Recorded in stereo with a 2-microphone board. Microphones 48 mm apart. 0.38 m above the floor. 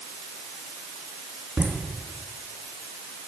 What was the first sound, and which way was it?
Laughter, 65° right (ahead or behind).